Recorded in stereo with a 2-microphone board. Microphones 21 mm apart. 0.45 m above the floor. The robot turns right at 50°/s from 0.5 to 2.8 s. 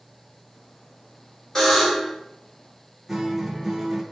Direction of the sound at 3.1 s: 20° right (ahead or behind).